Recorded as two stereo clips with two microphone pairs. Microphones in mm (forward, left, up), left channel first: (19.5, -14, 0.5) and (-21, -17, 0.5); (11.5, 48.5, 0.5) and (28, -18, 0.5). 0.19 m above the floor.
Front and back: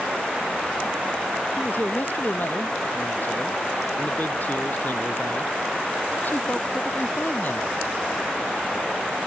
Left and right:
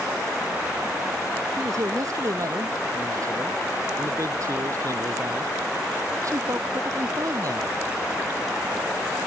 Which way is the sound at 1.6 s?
40° right.